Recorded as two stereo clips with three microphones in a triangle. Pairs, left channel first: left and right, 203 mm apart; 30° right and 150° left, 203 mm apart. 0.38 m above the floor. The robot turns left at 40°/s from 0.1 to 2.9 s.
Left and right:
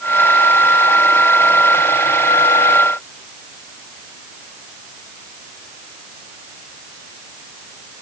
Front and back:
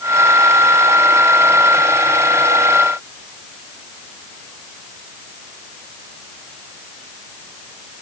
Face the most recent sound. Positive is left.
No sound to turn to.